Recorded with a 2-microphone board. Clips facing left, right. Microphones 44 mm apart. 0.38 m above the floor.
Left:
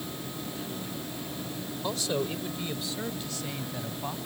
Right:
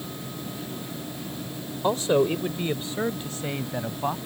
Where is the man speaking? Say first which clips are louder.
Right 10 dB; 35° right (ahead or behind).